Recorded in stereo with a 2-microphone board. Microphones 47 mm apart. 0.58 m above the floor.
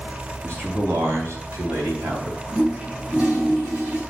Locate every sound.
0.4 s a man speaking: 55° right (ahead or behind), 4 m; by 2.4 s 70° right (ahead or behind), 3 m
2.5 s a toilet flushing: 25° right (ahead or behind), 4.5 m